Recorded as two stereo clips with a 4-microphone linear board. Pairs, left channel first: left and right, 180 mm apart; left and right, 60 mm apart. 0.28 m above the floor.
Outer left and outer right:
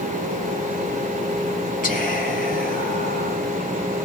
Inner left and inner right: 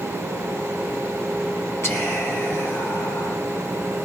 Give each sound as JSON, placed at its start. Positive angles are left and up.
{"t": 1.8, "sound": "whispering", "side_deg": 50, "distance_m": 2.5}